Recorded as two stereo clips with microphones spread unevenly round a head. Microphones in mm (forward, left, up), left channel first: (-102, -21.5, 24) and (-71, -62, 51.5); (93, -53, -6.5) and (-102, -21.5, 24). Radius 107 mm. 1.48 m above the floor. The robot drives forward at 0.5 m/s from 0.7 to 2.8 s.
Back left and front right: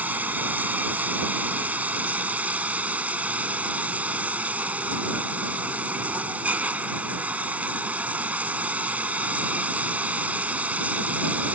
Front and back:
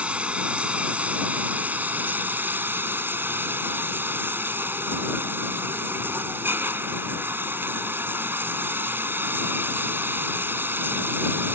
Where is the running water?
105° right; by 11.5 s 110° right.